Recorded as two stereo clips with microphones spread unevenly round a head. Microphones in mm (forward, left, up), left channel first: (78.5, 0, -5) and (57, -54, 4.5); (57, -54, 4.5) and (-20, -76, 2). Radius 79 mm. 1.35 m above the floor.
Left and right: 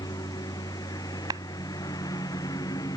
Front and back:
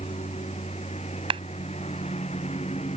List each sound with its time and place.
0.0 s a lawn mower: 65° left
1.3 s a clap: 160° right